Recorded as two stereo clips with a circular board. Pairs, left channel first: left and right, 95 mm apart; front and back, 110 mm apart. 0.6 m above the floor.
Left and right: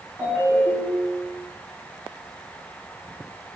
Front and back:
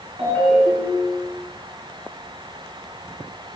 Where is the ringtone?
165° right, 4 m.